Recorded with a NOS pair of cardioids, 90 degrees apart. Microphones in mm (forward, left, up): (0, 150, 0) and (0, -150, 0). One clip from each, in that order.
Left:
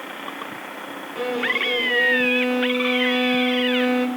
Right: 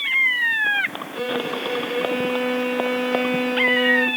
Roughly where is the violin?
Ahead.